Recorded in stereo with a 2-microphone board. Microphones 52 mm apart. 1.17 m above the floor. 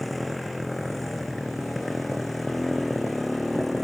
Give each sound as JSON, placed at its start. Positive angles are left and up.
{"t": 0.0, "sound": "a motorcycle", "side_deg": 0}